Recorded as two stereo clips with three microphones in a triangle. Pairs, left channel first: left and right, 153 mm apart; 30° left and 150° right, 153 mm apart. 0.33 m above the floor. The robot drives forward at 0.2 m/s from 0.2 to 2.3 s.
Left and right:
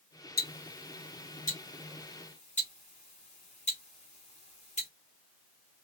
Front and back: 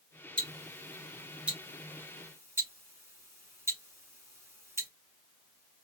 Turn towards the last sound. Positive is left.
turn(degrees=135)